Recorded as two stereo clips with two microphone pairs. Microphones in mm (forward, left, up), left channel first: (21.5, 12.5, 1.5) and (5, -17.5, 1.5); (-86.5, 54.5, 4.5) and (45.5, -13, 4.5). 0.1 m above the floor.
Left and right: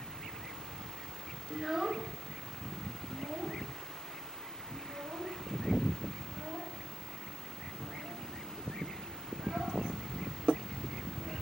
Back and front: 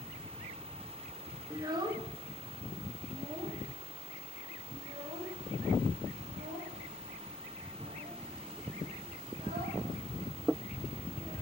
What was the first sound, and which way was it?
A child speaking, 40° right.